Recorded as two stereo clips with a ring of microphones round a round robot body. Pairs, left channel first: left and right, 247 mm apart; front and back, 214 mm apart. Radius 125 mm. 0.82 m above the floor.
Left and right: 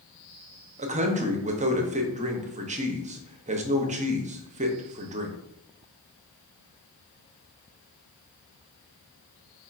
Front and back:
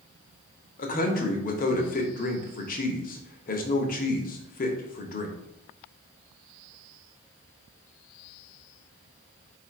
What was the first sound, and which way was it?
A man speaking, 35° right.